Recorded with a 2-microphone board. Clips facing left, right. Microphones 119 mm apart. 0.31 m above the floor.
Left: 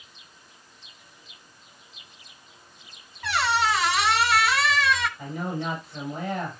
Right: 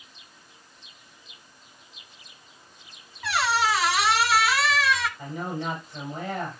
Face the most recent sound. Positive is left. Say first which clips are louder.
# left 1 dB
turn(degrees=10)  # may be behind; listen again after turning